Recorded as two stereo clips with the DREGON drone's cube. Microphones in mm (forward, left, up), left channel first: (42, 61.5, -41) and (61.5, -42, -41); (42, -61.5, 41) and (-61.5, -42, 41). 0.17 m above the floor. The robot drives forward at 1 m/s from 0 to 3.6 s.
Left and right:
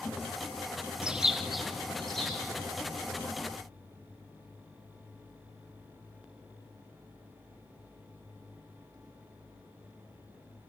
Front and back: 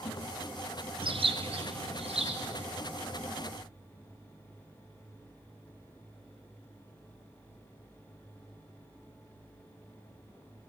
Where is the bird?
160° right, 0.6 m; by 2.7 s 175° right, 2.5 m.